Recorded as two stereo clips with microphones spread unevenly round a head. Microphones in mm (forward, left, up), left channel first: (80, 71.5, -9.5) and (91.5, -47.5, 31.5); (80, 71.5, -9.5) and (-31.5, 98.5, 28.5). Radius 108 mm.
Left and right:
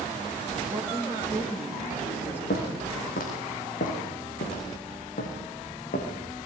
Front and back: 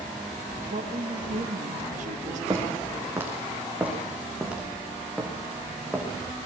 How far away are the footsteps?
About 6 m.